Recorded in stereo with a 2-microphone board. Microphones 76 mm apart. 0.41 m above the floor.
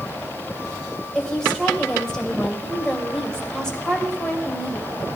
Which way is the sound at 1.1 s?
10° left (ahead or behind).